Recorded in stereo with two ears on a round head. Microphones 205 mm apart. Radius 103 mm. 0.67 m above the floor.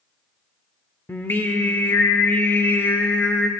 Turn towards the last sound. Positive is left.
turn(degrees=10)  # may be behind; listen again after turning